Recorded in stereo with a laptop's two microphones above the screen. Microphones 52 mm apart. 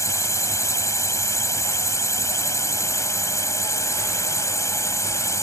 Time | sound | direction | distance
0.0 | a drone | 70° left (ahead or behind) | ?